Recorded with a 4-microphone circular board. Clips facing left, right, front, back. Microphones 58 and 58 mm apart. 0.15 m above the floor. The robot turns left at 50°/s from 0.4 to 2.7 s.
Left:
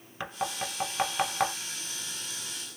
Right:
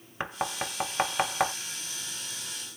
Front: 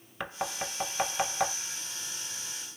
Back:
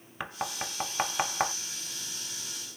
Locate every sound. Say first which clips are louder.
0.2 s knocking: right 1 dB, front 1 dB; 105° right, 0.8 m; by 1.5 s 165° right, 0.8 m